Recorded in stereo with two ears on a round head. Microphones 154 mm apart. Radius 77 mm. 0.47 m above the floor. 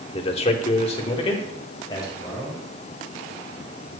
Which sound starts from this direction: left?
A man speaking, at 0.1 s.